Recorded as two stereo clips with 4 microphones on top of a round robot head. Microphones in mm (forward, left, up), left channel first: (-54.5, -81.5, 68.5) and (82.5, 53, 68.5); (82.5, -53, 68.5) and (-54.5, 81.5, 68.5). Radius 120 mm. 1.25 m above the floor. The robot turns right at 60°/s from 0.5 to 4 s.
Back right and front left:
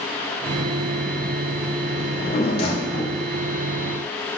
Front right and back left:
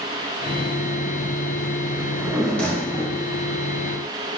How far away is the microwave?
No microwave in this recording.